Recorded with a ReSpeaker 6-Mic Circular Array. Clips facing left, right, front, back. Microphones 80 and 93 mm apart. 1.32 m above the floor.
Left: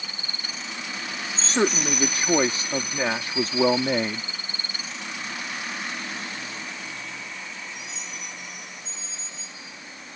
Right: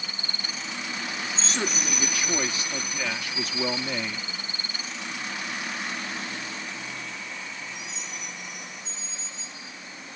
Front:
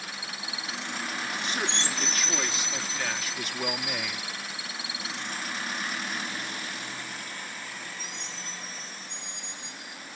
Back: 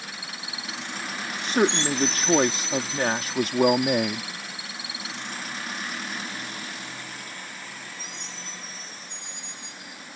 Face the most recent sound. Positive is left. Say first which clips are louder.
# left 9 dB, back 12 dB
turn(degrees=140)